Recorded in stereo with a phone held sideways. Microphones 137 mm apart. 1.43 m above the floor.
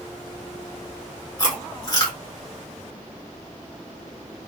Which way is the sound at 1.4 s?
30° left (ahead or behind).